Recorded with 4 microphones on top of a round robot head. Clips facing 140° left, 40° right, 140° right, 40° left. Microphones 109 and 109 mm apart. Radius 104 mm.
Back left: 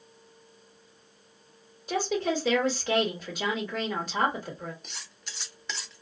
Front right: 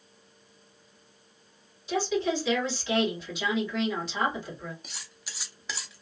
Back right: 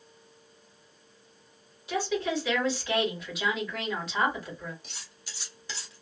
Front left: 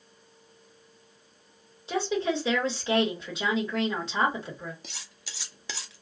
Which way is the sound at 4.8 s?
45° left.